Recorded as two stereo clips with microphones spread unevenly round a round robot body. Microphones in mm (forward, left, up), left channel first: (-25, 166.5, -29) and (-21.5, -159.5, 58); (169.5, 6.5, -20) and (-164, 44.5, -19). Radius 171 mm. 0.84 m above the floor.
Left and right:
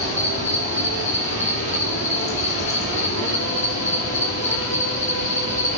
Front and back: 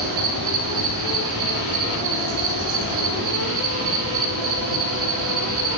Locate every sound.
0.0 s an insect: 150° left, 3.5 m